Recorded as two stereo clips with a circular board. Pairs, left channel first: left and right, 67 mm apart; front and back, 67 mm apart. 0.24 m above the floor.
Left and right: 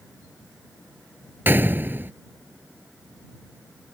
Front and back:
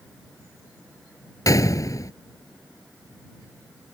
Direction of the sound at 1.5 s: 30° right.